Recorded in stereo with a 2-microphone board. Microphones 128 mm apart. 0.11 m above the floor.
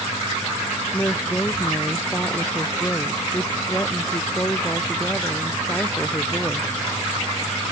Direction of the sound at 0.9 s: 15° left (ahead or behind).